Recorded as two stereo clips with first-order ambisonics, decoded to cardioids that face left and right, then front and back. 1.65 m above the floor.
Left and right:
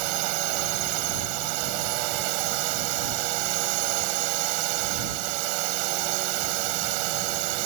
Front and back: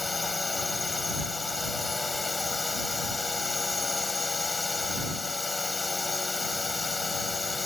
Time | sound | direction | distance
0.0 | a drone | 80° right | ?